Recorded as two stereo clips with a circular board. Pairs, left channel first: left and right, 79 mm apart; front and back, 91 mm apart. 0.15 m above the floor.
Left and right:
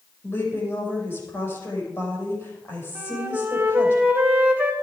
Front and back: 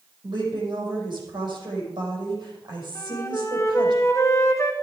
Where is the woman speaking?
145° left, 6 m.